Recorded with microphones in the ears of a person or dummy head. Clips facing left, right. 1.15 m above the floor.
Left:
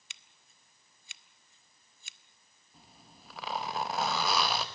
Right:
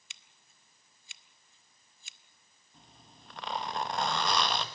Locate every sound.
0.1 s scissors: 35° left (ahead or behind), 0.5 m
2.7 s a zipper: 5° left (ahead or behind), 1.4 m